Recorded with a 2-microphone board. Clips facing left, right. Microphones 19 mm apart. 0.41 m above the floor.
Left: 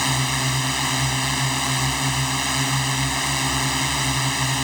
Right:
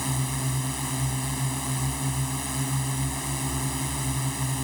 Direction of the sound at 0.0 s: 50° left (ahead or behind).